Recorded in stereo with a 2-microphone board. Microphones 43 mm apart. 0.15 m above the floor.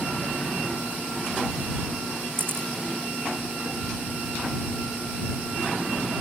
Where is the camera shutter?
55° right (ahead or behind).